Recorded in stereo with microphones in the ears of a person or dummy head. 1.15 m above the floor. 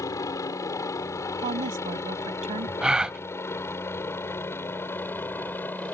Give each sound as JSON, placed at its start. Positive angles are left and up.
{"t": 0.0, "sound": "a helicopter", "side_deg": 20}
{"t": 1.4, "sound": "a woman speaking", "side_deg": -35}
{"t": 2.8, "sound": "a gasp", "side_deg": -5}